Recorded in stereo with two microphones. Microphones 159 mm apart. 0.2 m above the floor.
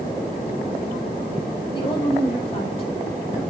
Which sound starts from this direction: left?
A woman speaking, at 1.7 s.